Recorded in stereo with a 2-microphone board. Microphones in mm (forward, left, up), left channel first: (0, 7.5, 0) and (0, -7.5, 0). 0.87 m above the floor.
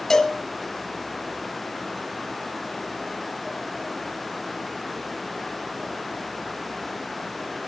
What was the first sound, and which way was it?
A cowbell, 25° left (ahead or behind).